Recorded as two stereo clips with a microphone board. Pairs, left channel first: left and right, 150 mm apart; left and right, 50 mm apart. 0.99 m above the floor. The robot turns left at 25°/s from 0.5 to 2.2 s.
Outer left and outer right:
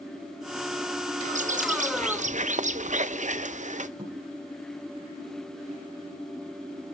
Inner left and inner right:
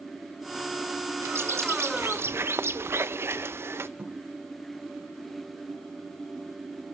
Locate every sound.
1.2 s a bird: 55° right (ahead or behind), 0.6 m
4.0 s a thud: 25° right (ahead or behind), 7 m